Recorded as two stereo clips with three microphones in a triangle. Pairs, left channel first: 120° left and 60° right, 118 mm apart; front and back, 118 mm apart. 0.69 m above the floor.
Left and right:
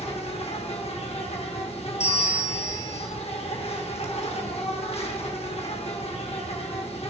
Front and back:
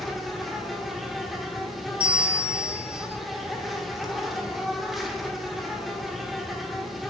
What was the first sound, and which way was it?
An insect, 90° left.